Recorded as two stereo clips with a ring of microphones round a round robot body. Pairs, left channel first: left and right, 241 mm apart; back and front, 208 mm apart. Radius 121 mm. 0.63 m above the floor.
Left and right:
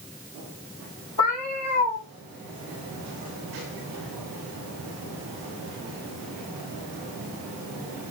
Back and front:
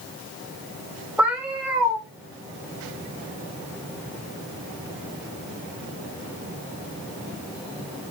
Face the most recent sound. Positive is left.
turn(degrees=85)